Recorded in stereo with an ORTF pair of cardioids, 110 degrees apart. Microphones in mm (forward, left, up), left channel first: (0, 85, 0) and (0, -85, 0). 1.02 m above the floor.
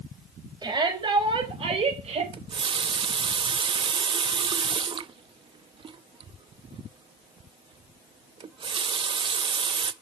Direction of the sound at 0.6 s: 25° right.